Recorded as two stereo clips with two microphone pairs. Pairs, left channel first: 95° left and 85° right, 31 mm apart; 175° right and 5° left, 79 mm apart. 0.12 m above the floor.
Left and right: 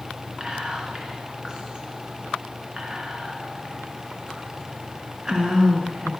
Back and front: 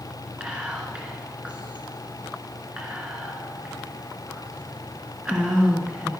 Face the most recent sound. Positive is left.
turn(degrees=-55)